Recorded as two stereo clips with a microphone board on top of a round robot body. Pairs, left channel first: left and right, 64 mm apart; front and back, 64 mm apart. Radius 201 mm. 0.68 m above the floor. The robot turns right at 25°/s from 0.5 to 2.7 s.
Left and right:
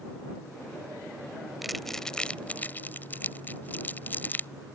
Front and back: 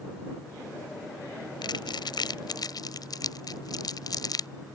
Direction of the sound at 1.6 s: Straight ahead.